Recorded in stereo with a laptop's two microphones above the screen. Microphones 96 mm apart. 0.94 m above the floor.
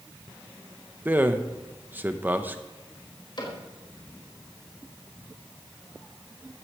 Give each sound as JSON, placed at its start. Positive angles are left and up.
{"t": 1.1, "sound": "a man speaking", "side_deg": -20, "distance_m": 0.8}
{"t": 3.4, "sound": "a cupboard door", "side_deg": 50, "distance_m": 4.5}